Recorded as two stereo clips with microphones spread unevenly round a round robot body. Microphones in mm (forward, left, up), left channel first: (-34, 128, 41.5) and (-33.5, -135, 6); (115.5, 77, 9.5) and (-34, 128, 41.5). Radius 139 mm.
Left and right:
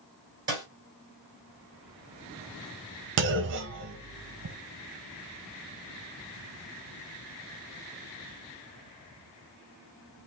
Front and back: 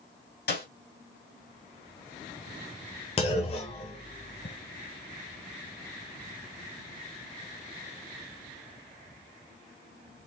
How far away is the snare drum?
About 3.5 m.